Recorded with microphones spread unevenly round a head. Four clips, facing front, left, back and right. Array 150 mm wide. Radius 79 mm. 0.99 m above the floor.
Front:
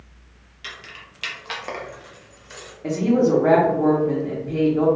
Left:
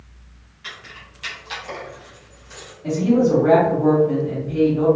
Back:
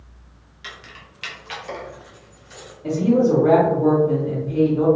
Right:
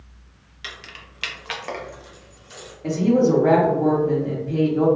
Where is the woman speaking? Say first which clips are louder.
Left 1 dB, back 1 dB; 30° right, 1.0 m.